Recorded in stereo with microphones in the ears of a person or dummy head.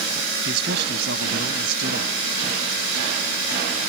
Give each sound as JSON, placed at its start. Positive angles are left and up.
{"t": 0.5, "sound": "a man speaking", "side_deg": -60}